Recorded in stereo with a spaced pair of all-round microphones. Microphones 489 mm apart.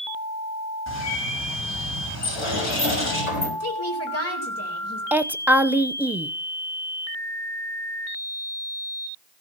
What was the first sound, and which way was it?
A bird, 35° left (ahead or behind).